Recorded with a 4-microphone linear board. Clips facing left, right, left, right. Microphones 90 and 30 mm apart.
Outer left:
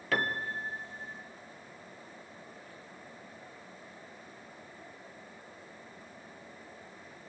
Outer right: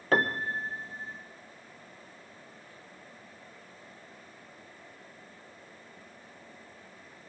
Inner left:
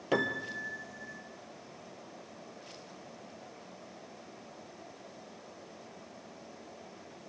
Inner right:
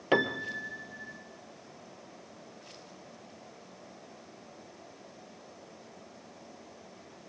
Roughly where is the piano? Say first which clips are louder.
Outer right 5 dB, inner right 3 dB; right.